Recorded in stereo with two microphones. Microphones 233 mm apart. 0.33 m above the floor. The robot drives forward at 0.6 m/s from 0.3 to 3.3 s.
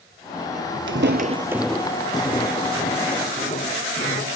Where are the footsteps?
65° right (ahead or behind), 0.6 m; by 4.3 s 40° left (ahead or behind), 2.5 m.